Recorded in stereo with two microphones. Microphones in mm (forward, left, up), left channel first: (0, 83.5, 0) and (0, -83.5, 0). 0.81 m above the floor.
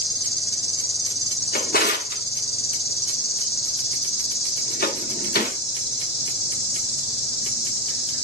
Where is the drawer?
70° left (ahead or behind), 0.9 m.